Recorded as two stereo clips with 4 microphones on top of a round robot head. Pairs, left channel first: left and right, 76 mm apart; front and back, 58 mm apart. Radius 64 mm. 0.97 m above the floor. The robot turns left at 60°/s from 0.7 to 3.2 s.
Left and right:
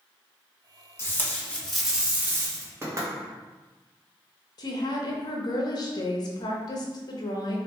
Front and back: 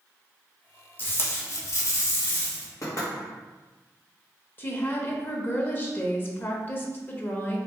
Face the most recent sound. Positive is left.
turn(degrees=55)